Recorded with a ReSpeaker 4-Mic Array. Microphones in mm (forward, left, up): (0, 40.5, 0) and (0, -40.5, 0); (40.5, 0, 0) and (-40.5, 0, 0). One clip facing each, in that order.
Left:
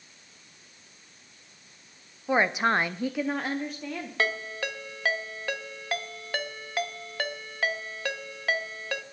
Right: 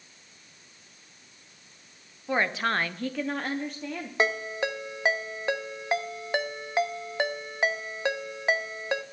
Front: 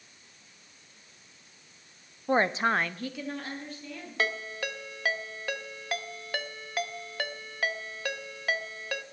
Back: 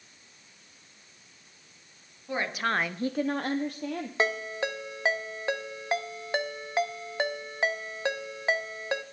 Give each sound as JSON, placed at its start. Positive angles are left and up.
{"t": 2.3, "sound": "a woman speaking", "azimuth_deg": 20, "distance_m": 0.7}
{"t": 4.2, "sound": "a ringtone", "azimuth_deg": -140, "distance_m": 0.7}